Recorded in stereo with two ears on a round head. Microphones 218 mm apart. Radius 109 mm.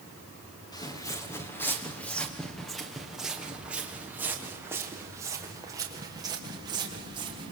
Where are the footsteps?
15° left (ahead or behind), 3 m; by 7.5 s 20° right (ahead or behind), 5.5 m.